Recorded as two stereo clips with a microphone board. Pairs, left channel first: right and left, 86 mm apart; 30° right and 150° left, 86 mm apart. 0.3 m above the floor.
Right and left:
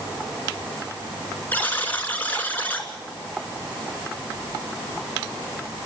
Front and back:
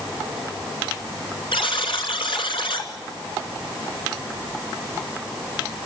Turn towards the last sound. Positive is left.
turn(degrees=-20)